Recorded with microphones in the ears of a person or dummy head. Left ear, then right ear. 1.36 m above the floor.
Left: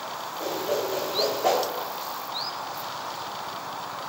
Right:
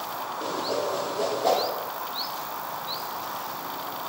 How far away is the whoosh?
About 0.8 m.